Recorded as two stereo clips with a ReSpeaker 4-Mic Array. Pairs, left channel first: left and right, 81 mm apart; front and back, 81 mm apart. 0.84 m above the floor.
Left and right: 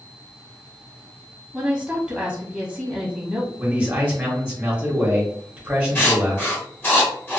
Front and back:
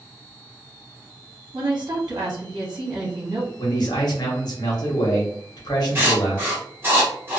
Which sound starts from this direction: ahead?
A man speaking, at 3.6 s.